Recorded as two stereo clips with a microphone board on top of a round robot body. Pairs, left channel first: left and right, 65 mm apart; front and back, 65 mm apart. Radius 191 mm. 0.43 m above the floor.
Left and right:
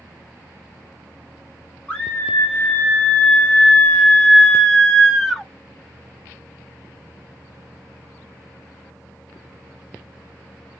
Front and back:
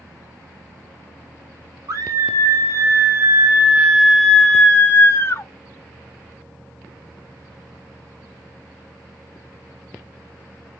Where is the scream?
160° left, 2.5 m; by 5.5 s 5° left, 1.6 m.